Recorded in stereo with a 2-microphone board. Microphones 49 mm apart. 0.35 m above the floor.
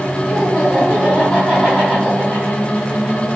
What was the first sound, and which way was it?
Laughter, 5° left (ahead or behind).